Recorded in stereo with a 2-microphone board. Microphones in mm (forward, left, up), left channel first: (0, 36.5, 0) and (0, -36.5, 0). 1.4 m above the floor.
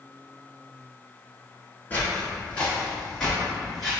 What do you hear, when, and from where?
1.9 s footsteps: 25° left (ahead or behind), 1.7 m; by 3.9 s 5° left (ahead or behind), 1.3 m